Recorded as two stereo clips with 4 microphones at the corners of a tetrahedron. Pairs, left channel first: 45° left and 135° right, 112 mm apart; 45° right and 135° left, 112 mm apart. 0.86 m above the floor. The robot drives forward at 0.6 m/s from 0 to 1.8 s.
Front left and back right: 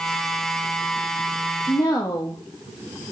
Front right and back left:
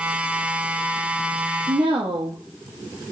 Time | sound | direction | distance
1.7 | a woman speaking | 95° left | 0.8 m